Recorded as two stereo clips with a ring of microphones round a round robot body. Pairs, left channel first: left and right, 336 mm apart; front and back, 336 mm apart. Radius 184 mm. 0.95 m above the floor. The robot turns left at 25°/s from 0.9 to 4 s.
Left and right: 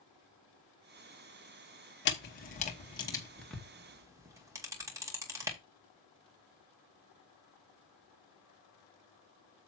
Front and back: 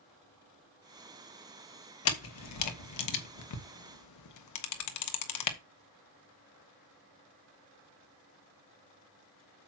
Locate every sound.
2.0 s a camera shutter: 40° left, 1.3 m; by 5.6 s 10° right, 1.3 m